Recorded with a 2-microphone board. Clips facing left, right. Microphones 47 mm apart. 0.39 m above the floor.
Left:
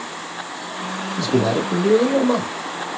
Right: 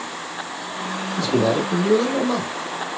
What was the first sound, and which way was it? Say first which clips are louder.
A man speaking: even; 15° right (ahead or behind).